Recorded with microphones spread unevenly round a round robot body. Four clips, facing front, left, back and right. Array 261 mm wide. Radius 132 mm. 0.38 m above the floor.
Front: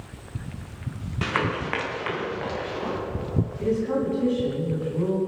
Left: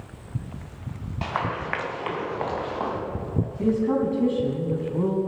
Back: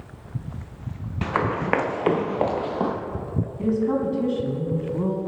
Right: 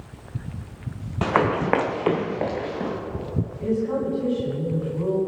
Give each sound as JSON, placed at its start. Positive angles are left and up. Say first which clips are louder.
{"t": 1.2, "sound": "running footsteps", "louder": "right 7 dB, back 2 dB", "azimuth_deg": -85, "distance_m": 1.2}
{"t": 3.6, "sound": "a woman speaking", "louder": "left 2 dB, back 3 dB", "azimuth_deg": 115, "distance_m": 4.0}